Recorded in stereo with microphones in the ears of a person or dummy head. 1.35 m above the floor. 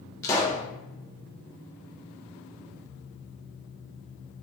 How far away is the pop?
About 0.8 m.